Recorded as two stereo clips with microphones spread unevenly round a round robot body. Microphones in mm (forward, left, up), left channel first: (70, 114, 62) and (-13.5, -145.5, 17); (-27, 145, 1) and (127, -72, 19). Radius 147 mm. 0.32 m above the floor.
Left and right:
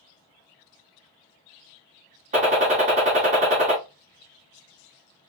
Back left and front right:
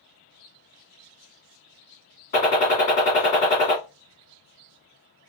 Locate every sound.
2.3 s a gunshot: 170° right, 1.7 m